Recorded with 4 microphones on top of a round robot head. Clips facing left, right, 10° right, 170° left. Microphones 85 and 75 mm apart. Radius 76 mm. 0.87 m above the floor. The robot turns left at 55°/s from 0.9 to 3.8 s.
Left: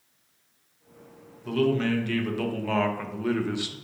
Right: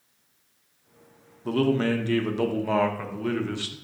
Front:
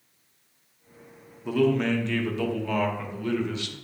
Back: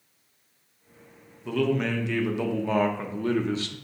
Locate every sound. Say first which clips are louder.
1.4 s a man speaking: right 1 dB, front 3 dB; 85° right, 0.7 m; by 3.8 s 150° left, 0.7 m